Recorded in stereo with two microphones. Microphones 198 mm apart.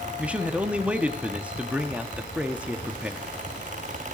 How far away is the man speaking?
About 0.7 m.